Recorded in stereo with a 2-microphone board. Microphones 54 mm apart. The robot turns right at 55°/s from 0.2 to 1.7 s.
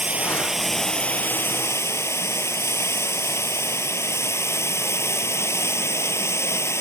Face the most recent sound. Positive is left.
turn(degrees=55)